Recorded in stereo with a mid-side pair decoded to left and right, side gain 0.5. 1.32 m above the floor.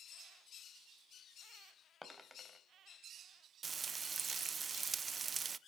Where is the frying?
35° right, 0.7 m.